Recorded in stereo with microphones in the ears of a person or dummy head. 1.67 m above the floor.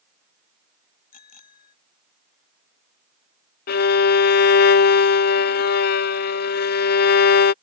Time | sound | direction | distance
1.1 | a bicycle bell | 50° left (ahead or behind) | ?
3.7 | a violin | 60° left (ahead or behind) | ?